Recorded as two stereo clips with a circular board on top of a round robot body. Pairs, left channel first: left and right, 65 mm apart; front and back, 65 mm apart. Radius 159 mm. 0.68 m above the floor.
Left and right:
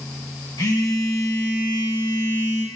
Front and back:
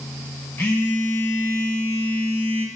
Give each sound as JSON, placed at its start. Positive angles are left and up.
{"t": 0.6, "sound": "a phone buzzing", "azimuth_deg": 60, "distance_m": 1.6}